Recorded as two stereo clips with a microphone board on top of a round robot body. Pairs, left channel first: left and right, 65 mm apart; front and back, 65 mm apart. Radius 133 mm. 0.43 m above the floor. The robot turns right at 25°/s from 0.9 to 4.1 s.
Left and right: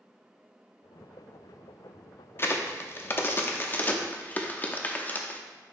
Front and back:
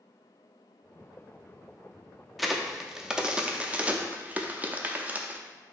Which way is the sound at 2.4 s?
90° left.